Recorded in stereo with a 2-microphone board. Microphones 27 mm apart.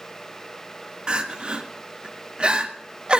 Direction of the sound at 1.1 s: 45° right (ahead or behind).